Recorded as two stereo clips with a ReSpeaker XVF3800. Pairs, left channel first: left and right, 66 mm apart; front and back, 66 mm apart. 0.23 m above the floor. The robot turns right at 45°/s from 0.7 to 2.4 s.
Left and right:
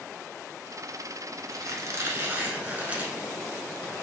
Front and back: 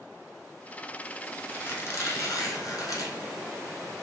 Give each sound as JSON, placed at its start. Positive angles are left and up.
{"t": 1.5, "sound": "a squeak", "azimuth_deg": -65, "distance_m": 0.9}